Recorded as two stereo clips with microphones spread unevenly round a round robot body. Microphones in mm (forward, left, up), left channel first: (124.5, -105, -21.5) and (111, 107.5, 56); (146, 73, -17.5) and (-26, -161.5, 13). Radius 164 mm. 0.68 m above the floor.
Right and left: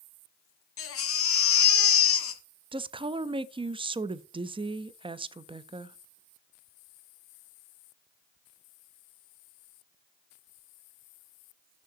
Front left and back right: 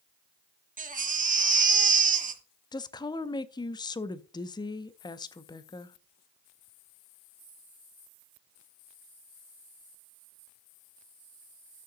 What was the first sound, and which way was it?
A baby crying, 65° right.